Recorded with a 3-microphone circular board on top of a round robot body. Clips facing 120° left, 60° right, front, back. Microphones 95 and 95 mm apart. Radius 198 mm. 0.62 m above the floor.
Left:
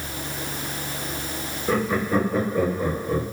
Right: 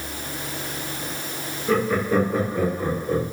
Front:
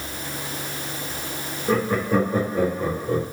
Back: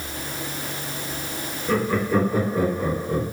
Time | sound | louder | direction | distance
1.7 | laughter | right 2 dB, even | 50° left | 1.5 m